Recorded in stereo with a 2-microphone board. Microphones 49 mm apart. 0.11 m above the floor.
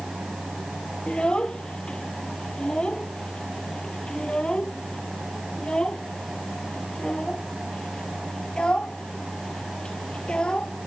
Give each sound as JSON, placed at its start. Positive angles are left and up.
{"t": 1.1, "sound": "a child speaking", "side_deg": 20}